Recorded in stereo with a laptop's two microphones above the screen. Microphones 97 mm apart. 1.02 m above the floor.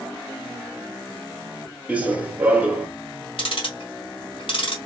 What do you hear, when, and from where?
1.9 s running footsteps: 15° right (ahead or behind), 1.1 m
3.4 s ticking: 65° left (ahead or behind), 1.6 m